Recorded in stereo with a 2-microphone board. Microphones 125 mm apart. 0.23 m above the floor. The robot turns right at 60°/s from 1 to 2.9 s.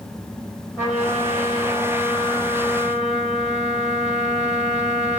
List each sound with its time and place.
0.8 s a trumpet: 165° right, 3.5 m; by 5.2 s 50° right, 3.5 m